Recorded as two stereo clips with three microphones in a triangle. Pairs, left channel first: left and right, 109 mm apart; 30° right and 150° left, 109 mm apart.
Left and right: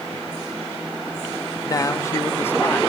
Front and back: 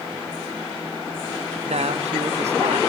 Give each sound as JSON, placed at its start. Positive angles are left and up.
{"t": 1.6, "sound": "a man speaking", "azimuth_deg": 145, "distance_m": 1.6}